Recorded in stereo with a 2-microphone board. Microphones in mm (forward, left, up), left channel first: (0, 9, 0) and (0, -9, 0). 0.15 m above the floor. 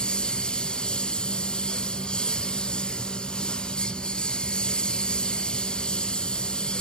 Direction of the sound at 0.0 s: 65° left (ahead or behind).